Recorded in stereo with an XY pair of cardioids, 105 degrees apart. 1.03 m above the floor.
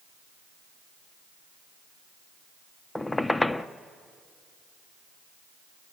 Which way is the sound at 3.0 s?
15° left.